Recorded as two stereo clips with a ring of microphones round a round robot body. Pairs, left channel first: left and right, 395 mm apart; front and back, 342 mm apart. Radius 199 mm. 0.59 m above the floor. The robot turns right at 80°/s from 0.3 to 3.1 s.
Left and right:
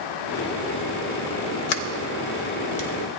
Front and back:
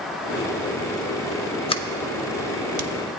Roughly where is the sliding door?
Left.